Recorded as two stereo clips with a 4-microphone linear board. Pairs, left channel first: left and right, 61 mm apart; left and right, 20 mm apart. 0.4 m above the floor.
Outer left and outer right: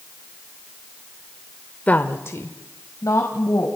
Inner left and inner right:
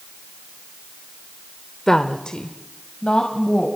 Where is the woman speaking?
25° left (ahead or behind), 1.0 m; by 3.7 s 60° left (ahead or behind), 2.5 m.